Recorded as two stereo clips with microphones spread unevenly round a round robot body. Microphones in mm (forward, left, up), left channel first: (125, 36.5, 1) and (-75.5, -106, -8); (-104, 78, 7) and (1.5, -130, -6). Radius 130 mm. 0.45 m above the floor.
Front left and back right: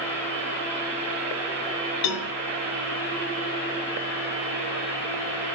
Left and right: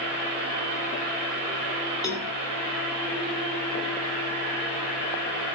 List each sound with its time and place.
2.0 s a cowbell: 40° left, 1.2 m